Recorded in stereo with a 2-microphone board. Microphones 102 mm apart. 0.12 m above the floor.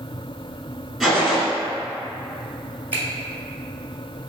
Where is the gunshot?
5° right (ahead or behind), 1.1 m.